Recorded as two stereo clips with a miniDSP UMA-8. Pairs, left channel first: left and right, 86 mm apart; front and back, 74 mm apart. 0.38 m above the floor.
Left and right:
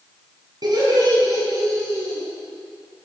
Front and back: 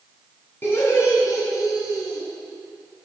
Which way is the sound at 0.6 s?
60° right.